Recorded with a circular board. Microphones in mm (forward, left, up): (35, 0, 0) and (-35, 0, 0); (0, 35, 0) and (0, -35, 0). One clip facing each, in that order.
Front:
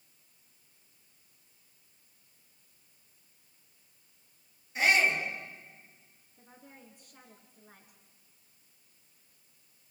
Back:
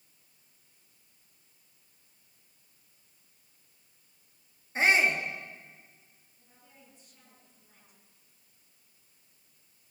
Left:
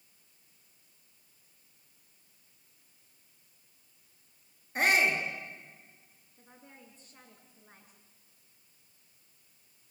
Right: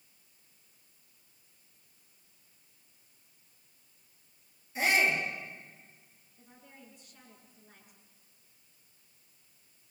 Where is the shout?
125° left, 8 m.